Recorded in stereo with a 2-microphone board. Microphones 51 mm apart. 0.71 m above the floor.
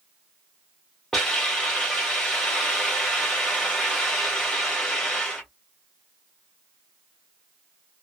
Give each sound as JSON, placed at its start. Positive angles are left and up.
{"t": 1.1, "sound": "a hiss", "side_deg": 5, "distance_m": 1.7}